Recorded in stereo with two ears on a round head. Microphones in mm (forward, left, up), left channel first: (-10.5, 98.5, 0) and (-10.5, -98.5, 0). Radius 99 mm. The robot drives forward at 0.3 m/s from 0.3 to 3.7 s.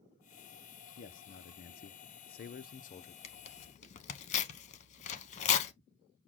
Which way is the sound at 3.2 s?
30° left (ahead or behind).